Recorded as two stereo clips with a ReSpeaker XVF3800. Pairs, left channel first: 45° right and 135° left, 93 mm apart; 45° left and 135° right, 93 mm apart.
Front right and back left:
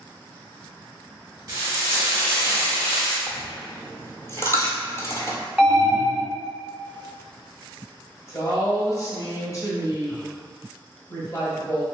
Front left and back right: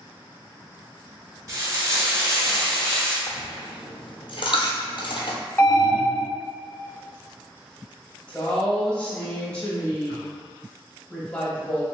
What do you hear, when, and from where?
1.5 s frying: straight behind, 1.1 m
3.3 s a dropped coin: 15° left, 0.7 m
5.6 s an alarm: 60° left, 1.3 m
8.3 s a woman speaking: 25° right, 1.1 m